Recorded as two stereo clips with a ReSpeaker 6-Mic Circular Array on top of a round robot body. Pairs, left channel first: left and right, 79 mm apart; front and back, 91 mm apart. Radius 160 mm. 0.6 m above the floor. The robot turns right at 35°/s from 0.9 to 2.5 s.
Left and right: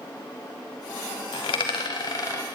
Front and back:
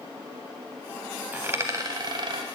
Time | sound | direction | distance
1.3 | a dropped coin | 105° left | 0.9 m